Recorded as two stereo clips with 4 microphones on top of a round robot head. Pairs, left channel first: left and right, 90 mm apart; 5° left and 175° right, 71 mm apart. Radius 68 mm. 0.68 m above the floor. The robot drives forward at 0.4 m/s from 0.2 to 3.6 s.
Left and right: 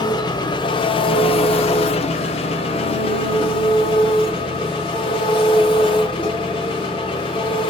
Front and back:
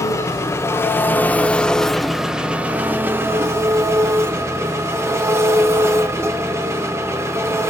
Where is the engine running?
50° left, 1.0 m; by 7.7 s 130° left, 1.0 m.